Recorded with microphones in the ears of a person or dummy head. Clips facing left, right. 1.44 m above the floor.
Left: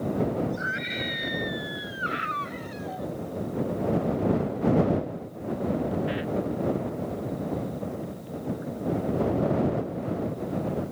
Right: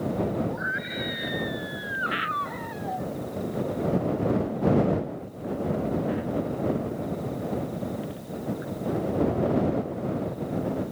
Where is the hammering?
I don't hear hammering.